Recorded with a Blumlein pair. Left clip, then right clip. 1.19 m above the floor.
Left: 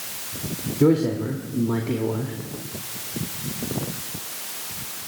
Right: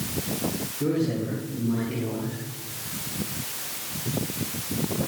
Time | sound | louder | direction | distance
0.8 | a man speaking | left 7 dB | 60° left | 2.5 m